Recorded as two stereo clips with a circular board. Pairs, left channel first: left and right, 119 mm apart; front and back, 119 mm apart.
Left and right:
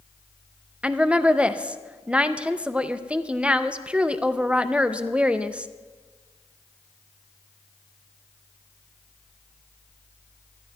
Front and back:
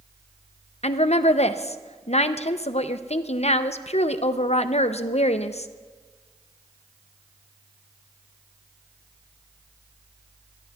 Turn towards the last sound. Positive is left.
turn(degrees=-10)